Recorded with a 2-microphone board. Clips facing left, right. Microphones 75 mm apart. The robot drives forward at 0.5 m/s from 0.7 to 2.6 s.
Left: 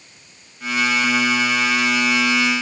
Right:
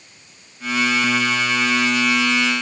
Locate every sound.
Only background noise.